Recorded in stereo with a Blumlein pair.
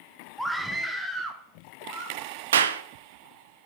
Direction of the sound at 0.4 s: Straight ahead.